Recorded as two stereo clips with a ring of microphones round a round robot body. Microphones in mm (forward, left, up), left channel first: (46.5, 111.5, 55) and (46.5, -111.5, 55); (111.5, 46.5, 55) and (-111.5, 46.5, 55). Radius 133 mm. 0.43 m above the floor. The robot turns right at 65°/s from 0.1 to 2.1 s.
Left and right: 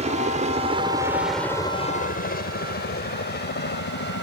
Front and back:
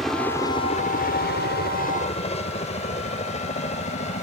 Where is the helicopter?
90° right; by 4.2 s 55° left.